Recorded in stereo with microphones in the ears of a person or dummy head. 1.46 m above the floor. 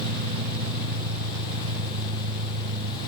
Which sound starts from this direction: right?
An engine running, at 0.0 s.